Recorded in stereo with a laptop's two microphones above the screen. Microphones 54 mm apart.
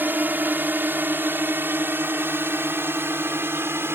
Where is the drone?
35° right (ahead or behind); by 4.0 s 45° right (ahead or behind).